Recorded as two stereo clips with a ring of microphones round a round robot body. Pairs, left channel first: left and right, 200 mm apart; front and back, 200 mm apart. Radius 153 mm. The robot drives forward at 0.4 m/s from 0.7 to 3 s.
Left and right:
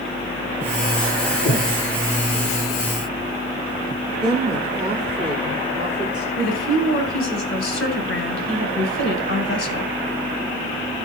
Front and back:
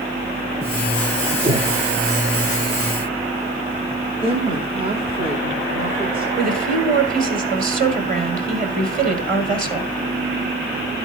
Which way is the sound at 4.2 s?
140° right.